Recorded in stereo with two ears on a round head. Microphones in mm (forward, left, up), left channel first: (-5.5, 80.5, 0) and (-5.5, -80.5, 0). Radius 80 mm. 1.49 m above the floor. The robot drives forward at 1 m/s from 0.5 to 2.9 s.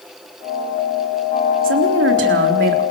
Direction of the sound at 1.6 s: 85° right.